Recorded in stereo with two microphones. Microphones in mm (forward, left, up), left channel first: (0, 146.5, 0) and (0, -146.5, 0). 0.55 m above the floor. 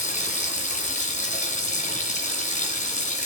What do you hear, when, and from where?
0.0 s running water: 25° left (ahead or behind), 2.5 m